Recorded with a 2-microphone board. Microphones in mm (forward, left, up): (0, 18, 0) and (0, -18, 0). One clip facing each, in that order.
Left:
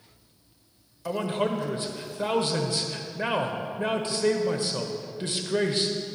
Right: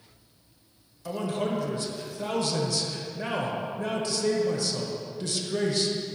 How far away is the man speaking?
About 0.9 m.